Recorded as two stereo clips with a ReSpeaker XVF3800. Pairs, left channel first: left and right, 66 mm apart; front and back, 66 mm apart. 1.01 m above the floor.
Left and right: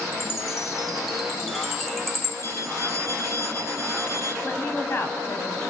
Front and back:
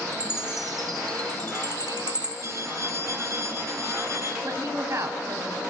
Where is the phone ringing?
135° left, 8 m.